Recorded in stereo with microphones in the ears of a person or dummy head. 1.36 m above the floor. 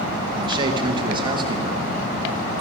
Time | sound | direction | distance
0.3 | a man speaking | 30° right (ahead or behind) | 1.1 m